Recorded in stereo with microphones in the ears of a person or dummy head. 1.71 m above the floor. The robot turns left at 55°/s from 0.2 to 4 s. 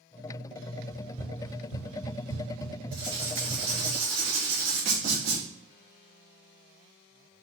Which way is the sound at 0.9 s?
5° right (ahead or behind).